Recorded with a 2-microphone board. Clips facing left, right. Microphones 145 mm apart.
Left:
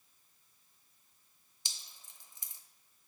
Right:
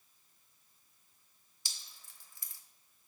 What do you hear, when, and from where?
1.6 s dripping: 20° left (ahead or behind), 1.0 m